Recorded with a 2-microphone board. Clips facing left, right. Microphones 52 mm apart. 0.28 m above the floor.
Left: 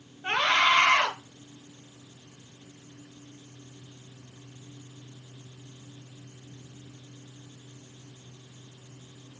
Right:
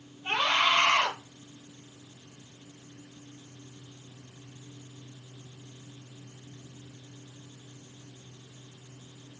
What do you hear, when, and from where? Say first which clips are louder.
0.2 s a scream: left 3 dB; 55° left (ahead or behind), 5 m